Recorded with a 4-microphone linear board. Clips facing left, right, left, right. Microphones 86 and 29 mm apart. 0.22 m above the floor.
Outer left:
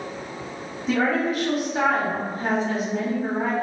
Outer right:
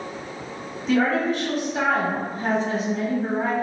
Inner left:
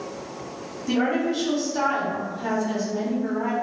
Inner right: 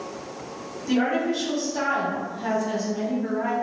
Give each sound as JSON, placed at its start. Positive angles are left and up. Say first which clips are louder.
{"t": 0.9, "sound": "a woman speaking", "louder": "outer right 1 dB, even", "side_deg": 5, "distance_m": 1.2}